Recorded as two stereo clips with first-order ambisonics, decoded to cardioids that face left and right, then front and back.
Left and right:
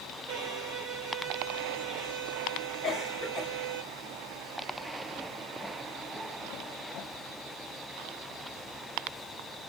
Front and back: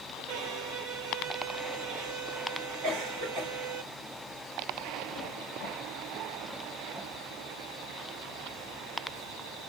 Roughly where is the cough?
Behind.